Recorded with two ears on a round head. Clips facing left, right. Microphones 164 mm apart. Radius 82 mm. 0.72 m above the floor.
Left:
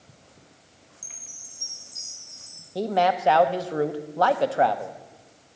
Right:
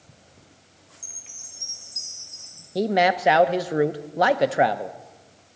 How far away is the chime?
About 5 m.